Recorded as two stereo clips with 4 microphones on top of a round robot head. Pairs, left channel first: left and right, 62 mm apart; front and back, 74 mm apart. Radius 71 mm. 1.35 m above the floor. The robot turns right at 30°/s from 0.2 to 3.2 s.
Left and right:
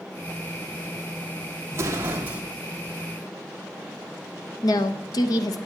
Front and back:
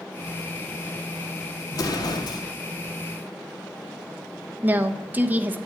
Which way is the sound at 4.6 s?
110° left.